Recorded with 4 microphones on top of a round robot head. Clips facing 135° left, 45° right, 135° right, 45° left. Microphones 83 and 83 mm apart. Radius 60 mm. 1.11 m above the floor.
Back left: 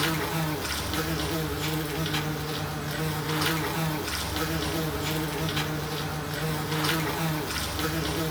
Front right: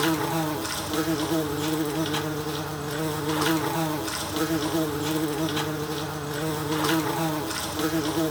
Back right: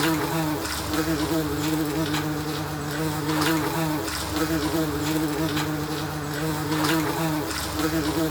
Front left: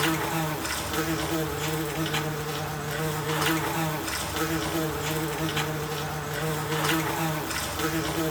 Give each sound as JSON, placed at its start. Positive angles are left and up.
{"t": 0.0, "sound": "an insect", "azimuth_deg": -70, "distance_m": 0.9}